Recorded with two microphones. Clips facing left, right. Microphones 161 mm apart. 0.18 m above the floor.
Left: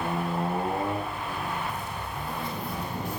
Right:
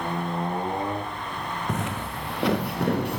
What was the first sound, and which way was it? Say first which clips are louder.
Footsteps: right 5 dB; 80° right.